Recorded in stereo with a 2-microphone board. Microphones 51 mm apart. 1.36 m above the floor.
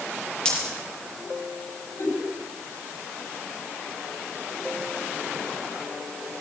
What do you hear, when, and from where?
0.5 s a dropped coin: 15° left (ahead or behind), 7 m
2.0 s a giggle: 65° left (ahead or behind), 7 m